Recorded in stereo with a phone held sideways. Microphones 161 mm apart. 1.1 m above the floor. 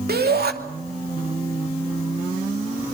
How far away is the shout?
About 2.5 m.